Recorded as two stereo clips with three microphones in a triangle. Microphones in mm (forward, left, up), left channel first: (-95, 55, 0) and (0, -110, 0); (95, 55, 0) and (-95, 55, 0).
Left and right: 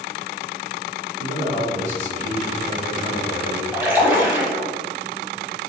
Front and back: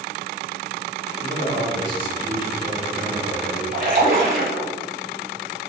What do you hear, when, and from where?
1.2 s a man speaking: 50° right, 1.6 m
3.7 s a splash: 140° right, 1.1 m